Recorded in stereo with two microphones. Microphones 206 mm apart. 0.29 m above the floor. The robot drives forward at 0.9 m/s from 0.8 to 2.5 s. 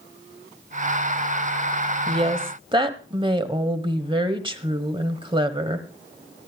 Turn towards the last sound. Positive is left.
turn(degrees=-25)  # may be behind; listen again after turning